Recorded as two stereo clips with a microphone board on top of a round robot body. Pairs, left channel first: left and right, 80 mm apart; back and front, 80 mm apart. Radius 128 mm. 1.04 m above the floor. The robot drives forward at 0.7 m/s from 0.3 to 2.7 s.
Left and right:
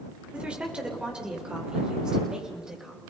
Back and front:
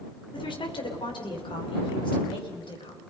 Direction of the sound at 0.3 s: 165° right.